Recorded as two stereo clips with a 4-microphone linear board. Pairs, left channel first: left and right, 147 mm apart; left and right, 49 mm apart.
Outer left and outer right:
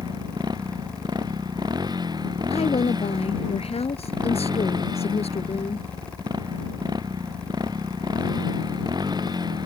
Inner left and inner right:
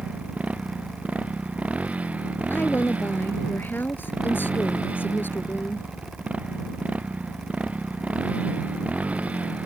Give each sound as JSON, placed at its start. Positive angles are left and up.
{"t": 0.0, "sound": "a motorcycle", "side_deg": -30}
{"t": 2.5, "sound": "a woman speaking", "side_deg": 45}